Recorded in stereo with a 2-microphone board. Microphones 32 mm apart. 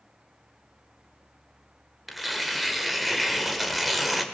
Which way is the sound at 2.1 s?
5° right (ahead or behind).